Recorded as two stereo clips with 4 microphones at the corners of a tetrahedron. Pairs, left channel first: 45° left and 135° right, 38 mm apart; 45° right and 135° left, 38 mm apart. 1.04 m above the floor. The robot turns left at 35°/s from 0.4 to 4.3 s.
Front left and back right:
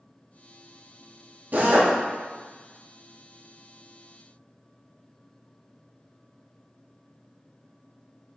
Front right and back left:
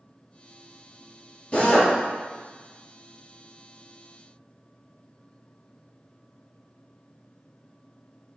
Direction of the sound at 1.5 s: 100° right.